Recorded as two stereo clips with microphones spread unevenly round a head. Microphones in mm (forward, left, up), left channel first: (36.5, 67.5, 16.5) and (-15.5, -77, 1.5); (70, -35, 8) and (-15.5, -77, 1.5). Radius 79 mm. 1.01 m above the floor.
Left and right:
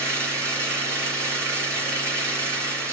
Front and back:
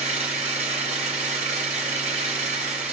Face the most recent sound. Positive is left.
turn(degrees=175)